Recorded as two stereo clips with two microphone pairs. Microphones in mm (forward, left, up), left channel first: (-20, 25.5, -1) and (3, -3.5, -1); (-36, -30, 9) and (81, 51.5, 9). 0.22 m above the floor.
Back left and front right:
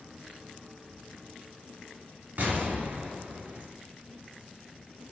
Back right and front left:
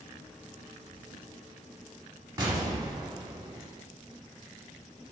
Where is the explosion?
25° right, 0.9 m.